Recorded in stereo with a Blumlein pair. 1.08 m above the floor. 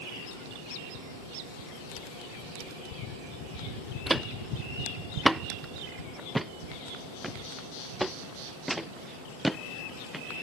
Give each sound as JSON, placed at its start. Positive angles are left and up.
{"t": 4.1, "sound": "footsteps", "azimuth_deg": -10}